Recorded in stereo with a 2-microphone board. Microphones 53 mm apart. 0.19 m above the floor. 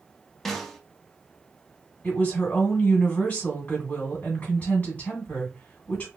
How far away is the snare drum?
About 0.5 m.